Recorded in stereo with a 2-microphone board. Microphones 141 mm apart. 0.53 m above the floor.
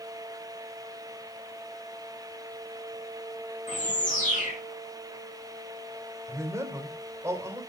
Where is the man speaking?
20° right (ahead or behind), 3 m.